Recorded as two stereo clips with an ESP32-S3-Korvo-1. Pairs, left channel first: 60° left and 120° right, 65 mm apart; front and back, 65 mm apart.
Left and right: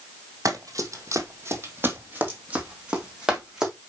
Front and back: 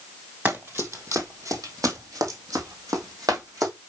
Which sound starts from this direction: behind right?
Running footsteps, at 0.5 s.